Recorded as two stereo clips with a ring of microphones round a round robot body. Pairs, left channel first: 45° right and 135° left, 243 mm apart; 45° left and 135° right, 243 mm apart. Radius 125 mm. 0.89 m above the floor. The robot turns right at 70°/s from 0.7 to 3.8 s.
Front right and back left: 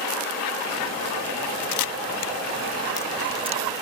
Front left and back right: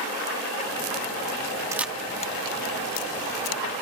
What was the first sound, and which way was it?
A camera shutter, 55° right.